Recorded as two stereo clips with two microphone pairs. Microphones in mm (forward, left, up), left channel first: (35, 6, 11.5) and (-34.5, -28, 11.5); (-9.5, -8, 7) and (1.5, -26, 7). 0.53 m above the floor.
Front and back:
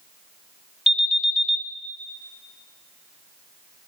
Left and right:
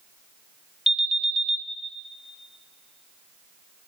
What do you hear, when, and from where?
0.9 s an alarm: 80° right, 1.3 m